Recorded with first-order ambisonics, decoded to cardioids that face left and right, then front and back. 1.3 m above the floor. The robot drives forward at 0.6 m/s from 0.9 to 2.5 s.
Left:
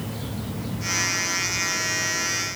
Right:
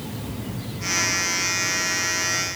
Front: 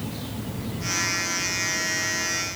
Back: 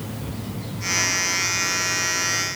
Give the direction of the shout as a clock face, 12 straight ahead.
I don't hear a shout.